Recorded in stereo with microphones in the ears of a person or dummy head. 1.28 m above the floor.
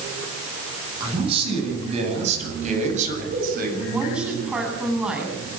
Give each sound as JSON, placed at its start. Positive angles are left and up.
{"t": 1.0, "sound": "a man speaking", "side_deg": -35, "distance_m": 10.0}
{"t": 3.9, "sound": "a woman speaking", "side_deg": -10, "distance_m": 9.5}